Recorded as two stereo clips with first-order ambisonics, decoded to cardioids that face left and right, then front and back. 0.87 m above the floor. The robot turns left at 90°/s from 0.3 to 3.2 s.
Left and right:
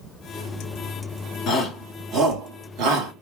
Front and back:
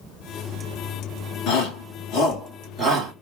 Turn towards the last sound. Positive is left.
turn(degrees=-120)